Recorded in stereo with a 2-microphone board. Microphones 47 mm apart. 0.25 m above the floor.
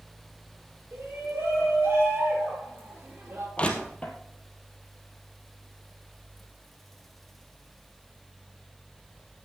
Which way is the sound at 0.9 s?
60° right (ahead or behind).